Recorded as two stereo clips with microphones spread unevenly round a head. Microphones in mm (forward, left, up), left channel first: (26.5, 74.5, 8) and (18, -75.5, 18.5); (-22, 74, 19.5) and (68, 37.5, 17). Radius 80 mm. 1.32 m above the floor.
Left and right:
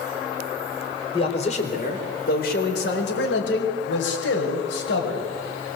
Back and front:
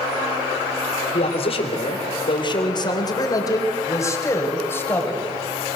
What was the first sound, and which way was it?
A man speaking, 145° left.